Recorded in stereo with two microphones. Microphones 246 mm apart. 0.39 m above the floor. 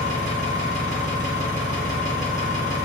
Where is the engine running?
30° left (ahead or behind), 1.1 m.